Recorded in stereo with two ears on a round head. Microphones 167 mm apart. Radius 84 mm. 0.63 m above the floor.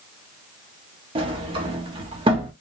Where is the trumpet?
No trumpet in this recording.